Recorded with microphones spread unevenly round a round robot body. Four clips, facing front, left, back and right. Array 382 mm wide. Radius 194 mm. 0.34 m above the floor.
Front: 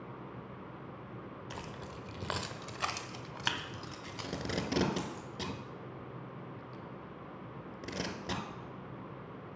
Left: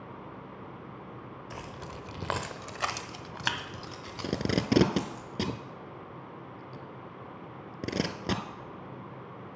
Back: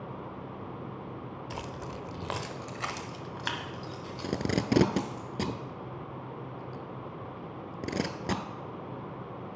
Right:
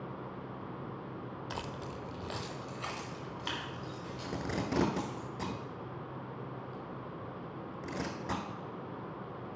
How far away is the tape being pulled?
About 0.7 m.